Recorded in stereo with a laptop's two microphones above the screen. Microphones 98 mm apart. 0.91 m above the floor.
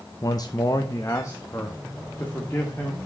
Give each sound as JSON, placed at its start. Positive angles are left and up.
{"t": 0.2, "sound": "a man speaking", "side_deg": 40, "distance_m": 0.6}